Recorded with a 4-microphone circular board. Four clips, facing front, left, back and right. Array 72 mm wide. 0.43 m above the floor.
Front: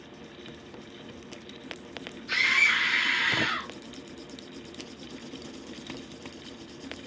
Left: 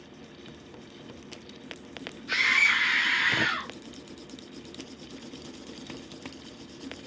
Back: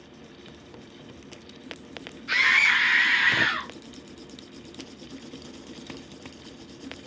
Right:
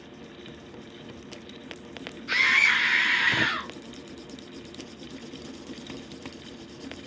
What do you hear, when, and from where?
2.3 s a scream: 145° right, 3.5 m; by 3.7 s 140° right, 1.6 m